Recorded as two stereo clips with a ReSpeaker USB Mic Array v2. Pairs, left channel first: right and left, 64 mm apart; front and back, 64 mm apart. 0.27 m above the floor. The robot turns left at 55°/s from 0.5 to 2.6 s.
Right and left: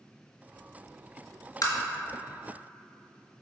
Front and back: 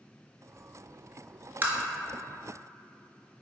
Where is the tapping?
120° right, 0.6 m; by 1.8 s 125° right, 0.6 m.